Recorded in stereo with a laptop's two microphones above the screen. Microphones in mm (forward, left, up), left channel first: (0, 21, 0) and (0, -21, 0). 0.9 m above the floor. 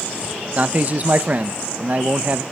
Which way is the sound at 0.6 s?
40° right (ahead or behind).